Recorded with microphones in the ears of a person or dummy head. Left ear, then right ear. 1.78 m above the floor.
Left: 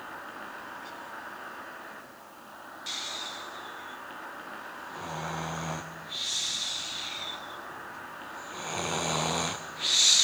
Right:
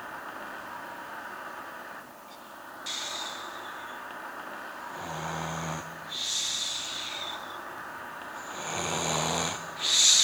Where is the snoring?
Centre (ahead or behind), 0.7 m.